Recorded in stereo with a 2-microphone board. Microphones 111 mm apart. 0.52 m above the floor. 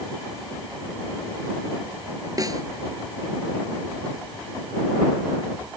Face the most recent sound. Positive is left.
turn(degrees=-35)  # may be behind; listen again after turning